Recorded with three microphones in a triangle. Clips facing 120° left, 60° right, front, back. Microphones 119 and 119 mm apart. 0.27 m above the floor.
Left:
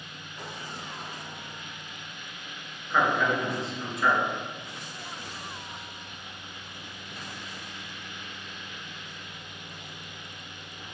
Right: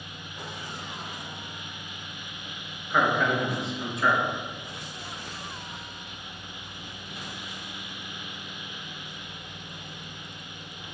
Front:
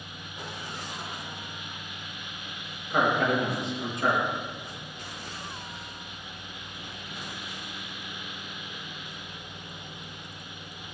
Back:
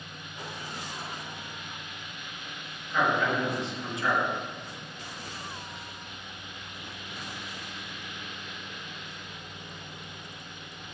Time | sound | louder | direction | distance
2.9 | a man speaking | right 1 dB, front 2 dB | 30° left | 4 m